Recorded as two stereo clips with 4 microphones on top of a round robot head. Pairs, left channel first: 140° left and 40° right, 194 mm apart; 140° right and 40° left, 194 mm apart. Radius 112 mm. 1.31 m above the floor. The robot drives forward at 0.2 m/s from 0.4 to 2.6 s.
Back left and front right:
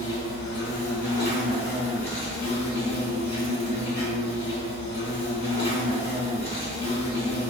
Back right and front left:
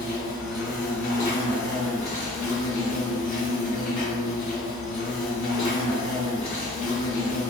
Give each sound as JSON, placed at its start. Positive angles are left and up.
{"t": 0.0, "sound": "an insect", "azimuth_deg": 175, "distance_m": 1.8}